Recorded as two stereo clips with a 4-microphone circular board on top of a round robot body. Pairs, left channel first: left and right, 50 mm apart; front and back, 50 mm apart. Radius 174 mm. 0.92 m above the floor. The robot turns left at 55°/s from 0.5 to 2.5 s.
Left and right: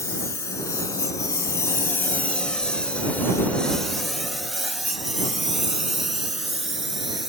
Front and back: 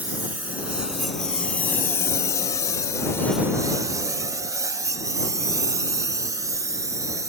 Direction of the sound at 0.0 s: 120° left.